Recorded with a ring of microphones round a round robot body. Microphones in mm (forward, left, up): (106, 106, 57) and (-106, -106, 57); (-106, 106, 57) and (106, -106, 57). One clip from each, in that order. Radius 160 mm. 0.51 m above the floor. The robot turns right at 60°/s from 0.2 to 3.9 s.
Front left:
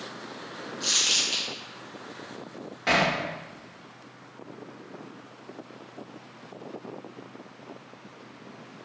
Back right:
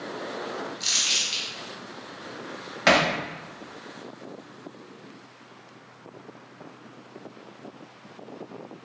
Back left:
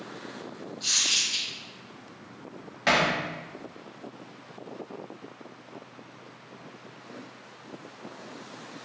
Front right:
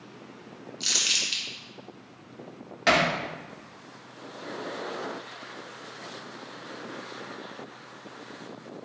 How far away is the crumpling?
About 1.6 m.